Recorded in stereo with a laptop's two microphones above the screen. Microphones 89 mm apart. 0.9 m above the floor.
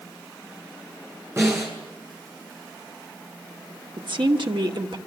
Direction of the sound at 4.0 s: 65° right (ahead or behind).